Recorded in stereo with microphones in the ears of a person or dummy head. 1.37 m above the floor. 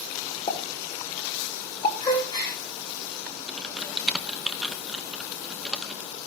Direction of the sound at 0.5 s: 35° left (ahead or behind).